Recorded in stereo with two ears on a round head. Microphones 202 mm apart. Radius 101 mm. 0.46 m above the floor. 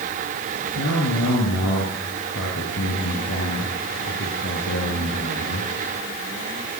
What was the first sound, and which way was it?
A man speaking, 60° left (ahead or behind).